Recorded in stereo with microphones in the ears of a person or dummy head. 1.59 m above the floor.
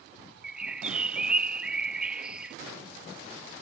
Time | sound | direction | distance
0.4 | a bird | 5° right (ahead or behind) | ?